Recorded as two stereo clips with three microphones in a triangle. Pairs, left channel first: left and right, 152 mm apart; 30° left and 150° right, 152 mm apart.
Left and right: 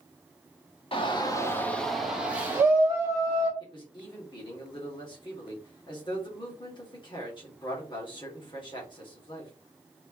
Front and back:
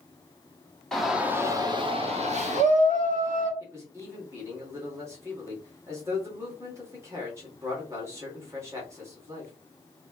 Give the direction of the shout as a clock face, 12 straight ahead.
8 o'clock.